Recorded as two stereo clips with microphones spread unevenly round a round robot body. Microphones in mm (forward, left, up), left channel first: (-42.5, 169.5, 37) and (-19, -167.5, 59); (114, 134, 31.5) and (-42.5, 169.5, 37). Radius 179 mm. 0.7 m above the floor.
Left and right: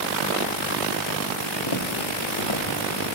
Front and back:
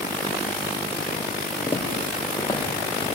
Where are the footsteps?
60° left, 5 m; by 3.1 s 55° left, 6.5 m.